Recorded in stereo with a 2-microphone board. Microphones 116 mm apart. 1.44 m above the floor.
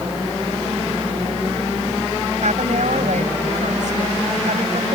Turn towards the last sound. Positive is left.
turn(degrees=-80)